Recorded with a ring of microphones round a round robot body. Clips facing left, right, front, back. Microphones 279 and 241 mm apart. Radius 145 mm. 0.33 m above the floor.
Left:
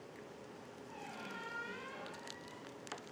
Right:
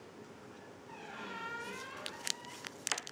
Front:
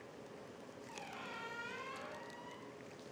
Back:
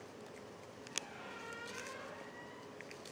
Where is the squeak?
15° right, 2.5 m.